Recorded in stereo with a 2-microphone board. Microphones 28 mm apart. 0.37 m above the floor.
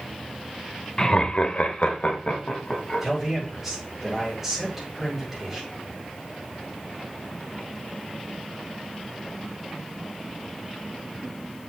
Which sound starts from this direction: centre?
A man speaking, at 3.0 s.